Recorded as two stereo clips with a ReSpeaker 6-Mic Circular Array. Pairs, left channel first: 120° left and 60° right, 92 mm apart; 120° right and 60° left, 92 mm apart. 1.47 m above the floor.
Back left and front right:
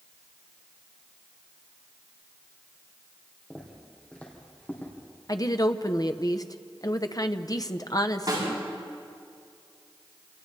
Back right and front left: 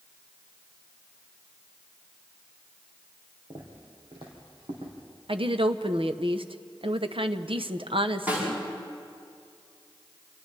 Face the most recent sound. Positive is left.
turn(degrees=-15)